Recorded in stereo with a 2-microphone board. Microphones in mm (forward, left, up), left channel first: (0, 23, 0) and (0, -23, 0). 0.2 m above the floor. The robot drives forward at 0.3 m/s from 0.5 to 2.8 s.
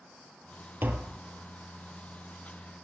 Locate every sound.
0.8 s tapping: 60° right (ahead or behind), 0.9 m; by 1.2 s 65° right (ahead or behind), 0.8 m